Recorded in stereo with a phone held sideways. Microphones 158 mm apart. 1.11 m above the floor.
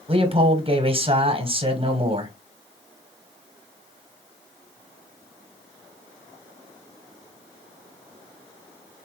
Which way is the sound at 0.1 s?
35° right (ahead or behind).